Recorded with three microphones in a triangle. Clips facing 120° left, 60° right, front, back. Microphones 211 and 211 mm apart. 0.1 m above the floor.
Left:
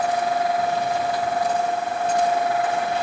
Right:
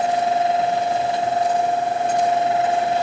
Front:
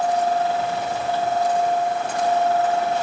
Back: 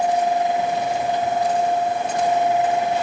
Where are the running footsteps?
No running footsteps in this recording.